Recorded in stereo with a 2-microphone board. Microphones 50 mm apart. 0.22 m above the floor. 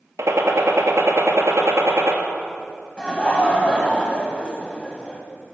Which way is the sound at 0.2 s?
70° right (ahead or behind).